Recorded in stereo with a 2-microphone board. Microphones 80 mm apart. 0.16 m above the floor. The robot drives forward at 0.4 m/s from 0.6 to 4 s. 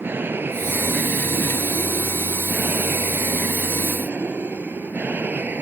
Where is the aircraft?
25° right (ahead or behind).